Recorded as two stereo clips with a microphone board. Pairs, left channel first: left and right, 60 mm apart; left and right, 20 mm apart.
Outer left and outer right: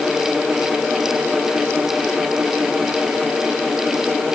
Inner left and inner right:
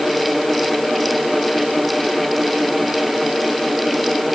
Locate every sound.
Only background noise.